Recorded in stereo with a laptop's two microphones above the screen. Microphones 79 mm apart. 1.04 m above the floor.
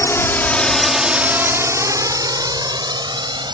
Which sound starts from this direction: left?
A drone, at 0.0 s.